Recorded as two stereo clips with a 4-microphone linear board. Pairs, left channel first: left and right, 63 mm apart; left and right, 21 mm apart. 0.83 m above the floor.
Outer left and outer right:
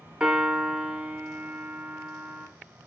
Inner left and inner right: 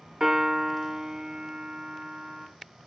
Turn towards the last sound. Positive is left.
turn(degrees=-10)  # may be behind; listen again after turning